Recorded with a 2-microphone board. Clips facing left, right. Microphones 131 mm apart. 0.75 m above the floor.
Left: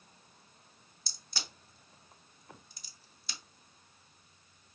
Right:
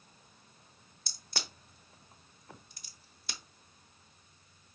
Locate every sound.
1.1 s a crack: 55° right (ahead or behind), 0.7 m